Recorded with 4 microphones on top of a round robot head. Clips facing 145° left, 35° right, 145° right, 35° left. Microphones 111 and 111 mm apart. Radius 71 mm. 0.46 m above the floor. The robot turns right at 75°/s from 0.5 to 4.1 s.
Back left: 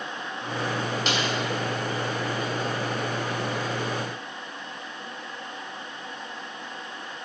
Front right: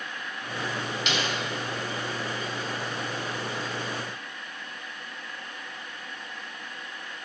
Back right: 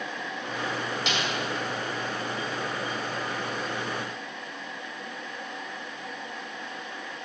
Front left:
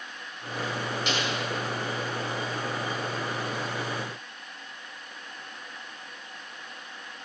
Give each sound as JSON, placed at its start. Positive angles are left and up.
{"t": 1.1, "sound": "a snare drum", "azimuth_deg": -160, "distance_m": 4.5}